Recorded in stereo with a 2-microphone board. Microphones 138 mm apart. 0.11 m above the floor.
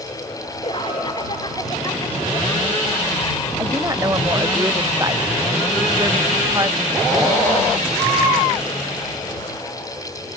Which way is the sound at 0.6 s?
40° left (ahead or behind).